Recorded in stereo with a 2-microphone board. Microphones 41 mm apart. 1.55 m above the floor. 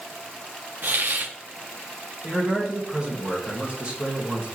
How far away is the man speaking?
About 2 m.